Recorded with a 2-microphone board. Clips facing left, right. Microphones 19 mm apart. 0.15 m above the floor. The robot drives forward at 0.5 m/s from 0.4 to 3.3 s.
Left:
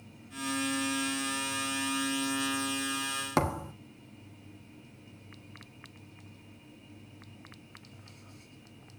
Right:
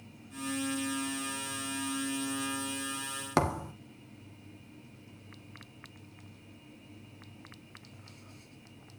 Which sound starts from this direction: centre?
A thud, at 3.4 s.